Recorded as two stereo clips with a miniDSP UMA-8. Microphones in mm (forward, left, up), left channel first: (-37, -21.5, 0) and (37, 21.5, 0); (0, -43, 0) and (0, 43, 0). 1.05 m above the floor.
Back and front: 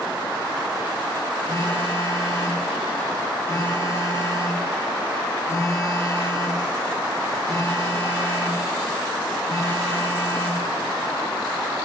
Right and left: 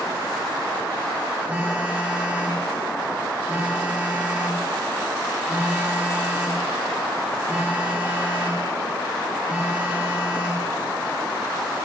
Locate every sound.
1.5 s a phone buzzing: 160° left, 0.9 m